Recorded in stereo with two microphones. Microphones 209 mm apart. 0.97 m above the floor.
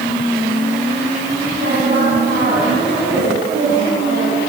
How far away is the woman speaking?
About 8.5 m.